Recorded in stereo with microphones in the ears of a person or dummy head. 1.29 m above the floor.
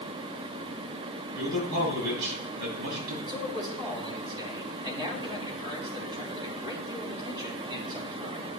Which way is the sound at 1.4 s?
65° right (ahead or behind).